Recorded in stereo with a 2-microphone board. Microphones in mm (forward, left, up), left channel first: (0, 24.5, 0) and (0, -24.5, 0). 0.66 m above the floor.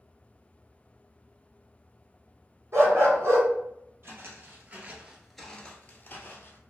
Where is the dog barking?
70° right (ahead or behind), 1.7 m.